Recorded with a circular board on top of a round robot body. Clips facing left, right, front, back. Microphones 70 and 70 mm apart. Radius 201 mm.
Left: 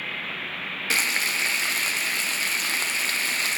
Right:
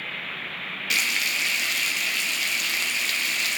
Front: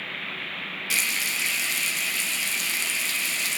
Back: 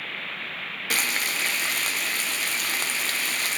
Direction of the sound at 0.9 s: 145° left.